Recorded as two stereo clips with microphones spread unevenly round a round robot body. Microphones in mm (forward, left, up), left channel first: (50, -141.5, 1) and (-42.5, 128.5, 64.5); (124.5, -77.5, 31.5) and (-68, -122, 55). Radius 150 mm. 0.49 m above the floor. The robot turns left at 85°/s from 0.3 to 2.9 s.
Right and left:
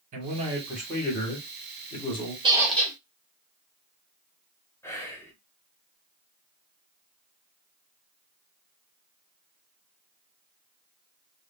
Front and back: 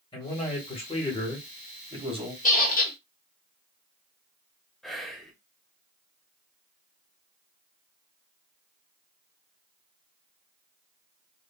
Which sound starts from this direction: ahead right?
Whispering, at 4.8 s.